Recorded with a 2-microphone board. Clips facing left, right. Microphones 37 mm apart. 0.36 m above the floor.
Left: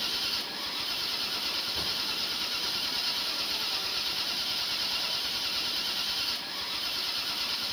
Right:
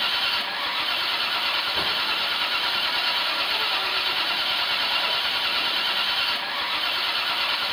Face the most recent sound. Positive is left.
turn(degrees=-40)  # may be behind; listen again after turning